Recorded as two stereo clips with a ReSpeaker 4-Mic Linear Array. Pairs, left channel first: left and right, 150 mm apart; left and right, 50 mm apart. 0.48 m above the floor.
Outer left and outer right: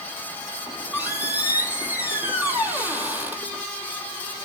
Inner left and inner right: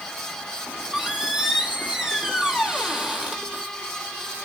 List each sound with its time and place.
0.7 s a squeak: 15° right (ahead or behind), 1.2 m